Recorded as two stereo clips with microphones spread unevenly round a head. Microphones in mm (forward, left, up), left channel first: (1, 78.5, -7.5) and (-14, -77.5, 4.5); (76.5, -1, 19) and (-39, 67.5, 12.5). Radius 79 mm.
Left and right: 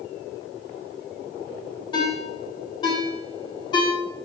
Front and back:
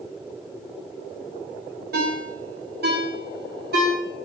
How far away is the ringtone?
About 3 m.